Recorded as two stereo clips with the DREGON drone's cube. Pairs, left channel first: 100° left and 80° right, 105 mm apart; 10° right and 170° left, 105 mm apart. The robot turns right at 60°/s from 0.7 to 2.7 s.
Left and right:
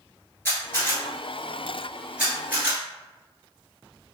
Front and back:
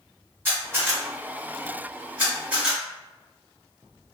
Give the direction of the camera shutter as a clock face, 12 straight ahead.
8 o'clock.